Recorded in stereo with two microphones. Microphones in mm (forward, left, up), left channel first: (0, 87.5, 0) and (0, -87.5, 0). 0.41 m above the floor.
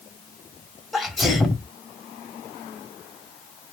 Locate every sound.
0.9 s a sneeze: centre (ahead or behind), 1.5 m